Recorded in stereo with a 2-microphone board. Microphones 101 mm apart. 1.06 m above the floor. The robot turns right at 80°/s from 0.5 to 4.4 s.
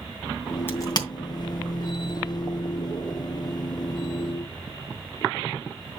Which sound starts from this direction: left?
A crack, at 0.7 s.